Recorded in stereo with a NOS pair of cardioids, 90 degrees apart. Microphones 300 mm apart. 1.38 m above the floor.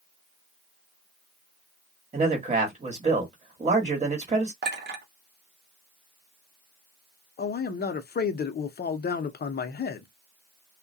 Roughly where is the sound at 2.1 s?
Ahead right.